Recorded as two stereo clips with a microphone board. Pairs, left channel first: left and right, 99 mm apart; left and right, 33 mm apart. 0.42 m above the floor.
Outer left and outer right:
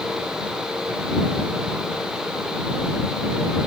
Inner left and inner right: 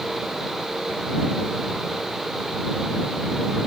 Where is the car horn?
No car horn in this recording.